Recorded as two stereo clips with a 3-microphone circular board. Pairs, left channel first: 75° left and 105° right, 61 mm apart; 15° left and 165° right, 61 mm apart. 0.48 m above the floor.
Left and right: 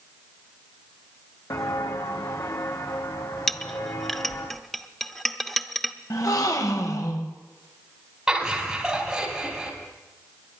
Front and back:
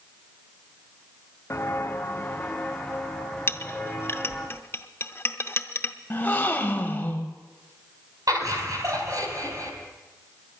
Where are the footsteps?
65° left, 1.3 m; by 4.5 s 105° left, 3 m.